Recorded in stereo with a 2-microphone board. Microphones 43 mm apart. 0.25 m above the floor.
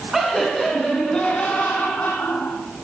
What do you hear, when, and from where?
0.1 s laughter: centre (ahead or behind), 2.5 m; by 2.9 s 65° left (ahead or behind), 2.5 m